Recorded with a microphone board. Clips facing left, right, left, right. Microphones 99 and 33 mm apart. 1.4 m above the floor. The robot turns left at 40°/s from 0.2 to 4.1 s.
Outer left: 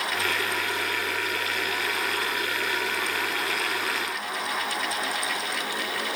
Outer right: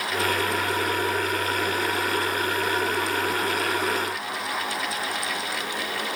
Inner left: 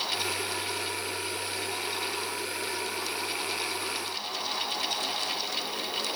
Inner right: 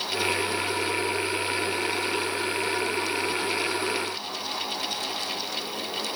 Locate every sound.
Only background noise.